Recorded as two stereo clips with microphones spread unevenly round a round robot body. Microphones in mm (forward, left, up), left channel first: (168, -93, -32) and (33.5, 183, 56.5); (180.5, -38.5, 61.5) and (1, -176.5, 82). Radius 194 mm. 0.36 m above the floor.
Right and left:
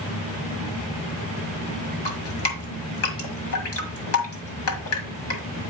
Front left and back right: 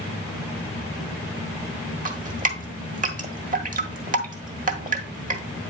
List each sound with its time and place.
2.0 s dripping: 90° right, 1.5 m